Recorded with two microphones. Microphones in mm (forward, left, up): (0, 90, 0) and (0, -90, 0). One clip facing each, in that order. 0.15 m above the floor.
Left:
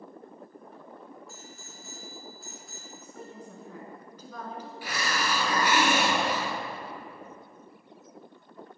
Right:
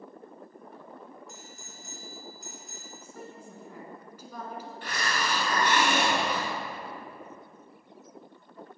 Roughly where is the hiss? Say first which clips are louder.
Left 1 dB; centre.